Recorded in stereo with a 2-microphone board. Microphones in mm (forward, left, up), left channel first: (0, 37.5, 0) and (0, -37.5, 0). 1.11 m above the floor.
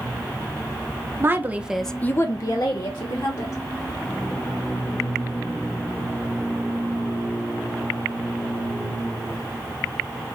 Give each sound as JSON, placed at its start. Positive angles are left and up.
{"t": 1.2, "sound": "a woman speaking", "side_deg": -35, "distance_m": 0.8}